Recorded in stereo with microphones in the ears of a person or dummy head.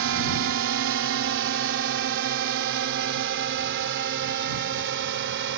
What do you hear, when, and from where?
0.0 s a drone: 60° right (ahead or behind); by 5.6 s 55° right (ahead or behind)